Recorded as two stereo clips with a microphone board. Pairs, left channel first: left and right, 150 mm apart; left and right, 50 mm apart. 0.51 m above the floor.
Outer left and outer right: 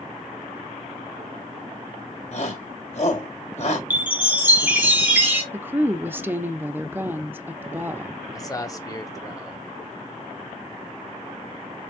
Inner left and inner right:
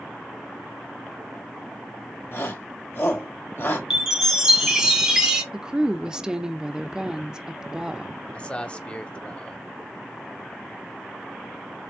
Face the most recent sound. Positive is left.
turn(degrees=25)  # may be behind; listen again after turning